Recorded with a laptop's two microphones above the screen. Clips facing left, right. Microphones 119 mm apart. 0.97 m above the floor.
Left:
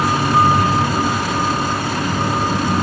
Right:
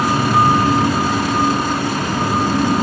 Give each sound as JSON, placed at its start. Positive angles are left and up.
{"t": 0.0, "sound": "a fan", "side_deg": -80, "distance_m": 5.5}